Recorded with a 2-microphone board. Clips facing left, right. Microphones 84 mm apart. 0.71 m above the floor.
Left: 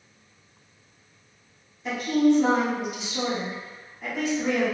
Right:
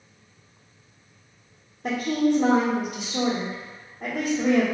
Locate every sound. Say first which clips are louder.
1.8 s a woman speaking: left 2 dB; 45° right (ahead or behind), 1.6 m